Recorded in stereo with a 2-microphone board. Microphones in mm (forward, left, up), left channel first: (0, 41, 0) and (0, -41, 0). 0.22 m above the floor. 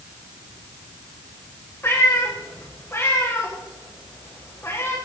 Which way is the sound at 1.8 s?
30° left (ahead or behind).